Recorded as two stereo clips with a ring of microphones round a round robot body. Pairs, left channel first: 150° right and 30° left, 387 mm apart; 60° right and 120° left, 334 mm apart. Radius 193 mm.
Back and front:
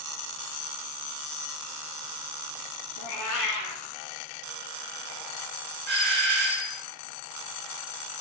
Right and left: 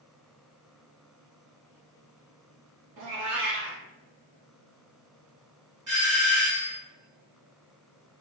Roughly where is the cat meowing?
Behind.